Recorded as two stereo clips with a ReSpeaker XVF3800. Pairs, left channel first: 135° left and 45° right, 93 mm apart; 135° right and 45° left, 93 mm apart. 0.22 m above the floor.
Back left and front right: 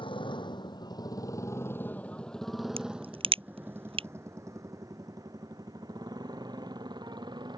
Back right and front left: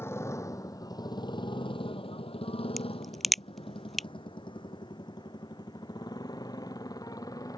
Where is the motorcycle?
160° left; by 7.6 s 85° right.